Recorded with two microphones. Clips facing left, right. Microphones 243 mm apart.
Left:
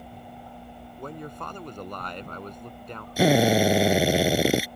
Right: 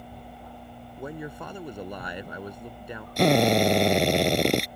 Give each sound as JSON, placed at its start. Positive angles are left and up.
{"t": 1.0, "sound": "a man speaking", "side_deg": -10}
{"t": 3.2, "sound": "a drill", "side_deg": 5}